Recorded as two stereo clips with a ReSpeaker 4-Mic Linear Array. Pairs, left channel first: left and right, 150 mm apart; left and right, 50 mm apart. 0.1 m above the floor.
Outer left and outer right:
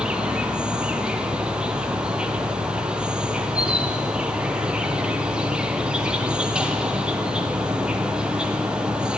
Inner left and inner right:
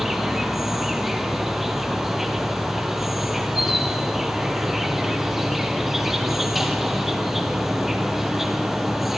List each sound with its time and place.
0.0 s an insect: 5° right (ahead or behind), 1.6 m